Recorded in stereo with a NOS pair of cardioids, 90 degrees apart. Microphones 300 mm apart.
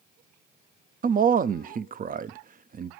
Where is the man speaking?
30° right, 0.5 m.